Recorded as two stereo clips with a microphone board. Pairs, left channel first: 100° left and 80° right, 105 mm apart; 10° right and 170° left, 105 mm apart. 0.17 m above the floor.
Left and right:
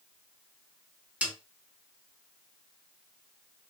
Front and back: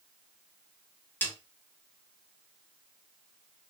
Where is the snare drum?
35° right, 1.4 m.